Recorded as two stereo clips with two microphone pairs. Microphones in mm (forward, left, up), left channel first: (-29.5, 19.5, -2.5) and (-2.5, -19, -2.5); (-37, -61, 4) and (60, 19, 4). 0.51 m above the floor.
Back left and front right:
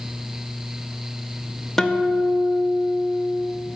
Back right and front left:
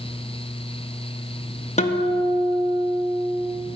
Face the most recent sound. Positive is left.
turn(degrees=-155)